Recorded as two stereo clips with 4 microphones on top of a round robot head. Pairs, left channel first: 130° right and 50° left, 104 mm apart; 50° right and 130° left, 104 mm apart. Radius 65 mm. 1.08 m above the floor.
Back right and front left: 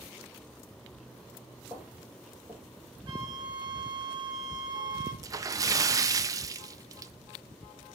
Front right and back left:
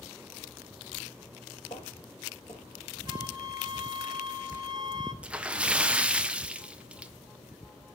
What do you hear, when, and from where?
1.7 s footsteps: 15° right, 1.2 m
3.1 s a flute: 90° left, 1.3 m
5.2 s a splash: 60° left, 0.5 m